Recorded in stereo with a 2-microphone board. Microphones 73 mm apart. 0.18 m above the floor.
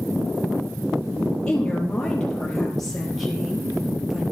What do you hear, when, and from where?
1.5 s a woman speaking: 15° left (ahead or behind), 4.5 m; by 4.2 s 5° right (ahead or behind), 4 m